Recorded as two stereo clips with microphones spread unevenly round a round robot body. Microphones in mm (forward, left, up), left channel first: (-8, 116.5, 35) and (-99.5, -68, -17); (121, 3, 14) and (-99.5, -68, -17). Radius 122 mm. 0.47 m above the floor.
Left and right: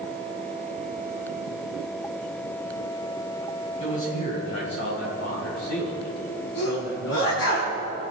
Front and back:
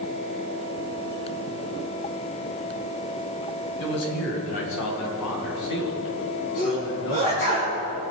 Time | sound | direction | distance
3.8 | a man speaking | 5° right | 3.5 m
6.6 | a sneeze | 65° left | 4.5 m